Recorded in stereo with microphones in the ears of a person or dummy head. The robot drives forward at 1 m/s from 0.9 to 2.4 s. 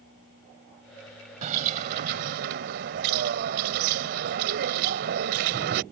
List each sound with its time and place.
1.4 s a bird: 45° right (ahead or behind); by 5.8 s 55° right (ahead or behind)